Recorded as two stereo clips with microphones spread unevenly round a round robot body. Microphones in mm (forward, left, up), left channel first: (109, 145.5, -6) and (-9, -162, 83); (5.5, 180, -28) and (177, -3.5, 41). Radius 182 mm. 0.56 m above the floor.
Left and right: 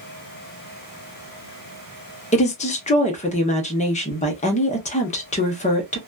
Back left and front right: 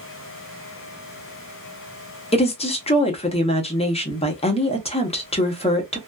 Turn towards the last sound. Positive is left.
turn(degrees=105)